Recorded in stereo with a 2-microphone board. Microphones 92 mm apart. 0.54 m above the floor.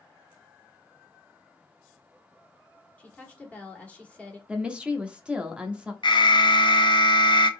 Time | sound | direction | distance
3.0 | a woman speaking | 15° left (ahead or behind) | 1.9 m
4.5 | a woman speaking | 10° right (ahead or behind) | 0.9 m
6.0 | an alarm | 55° left (ahead or behind) | 0.7 m